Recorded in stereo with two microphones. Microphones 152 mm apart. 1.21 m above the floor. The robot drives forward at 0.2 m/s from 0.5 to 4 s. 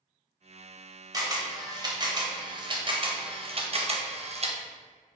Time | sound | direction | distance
1.1 | a camera shutter | 25° right (ahead or behind) | 1.0 m